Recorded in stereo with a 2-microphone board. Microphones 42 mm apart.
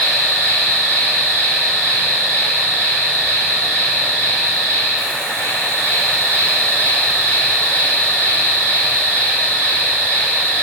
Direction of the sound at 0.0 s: 45° left (ahead or behind).